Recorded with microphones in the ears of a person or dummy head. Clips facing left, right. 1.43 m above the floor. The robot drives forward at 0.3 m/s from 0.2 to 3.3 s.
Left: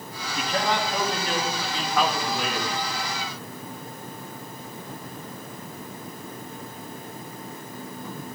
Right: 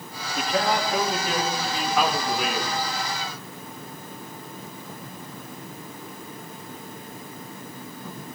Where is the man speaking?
5° right (ahead or behind), 3.5 m.